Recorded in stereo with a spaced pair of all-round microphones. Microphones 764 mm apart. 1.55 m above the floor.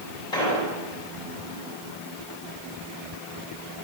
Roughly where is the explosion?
Left.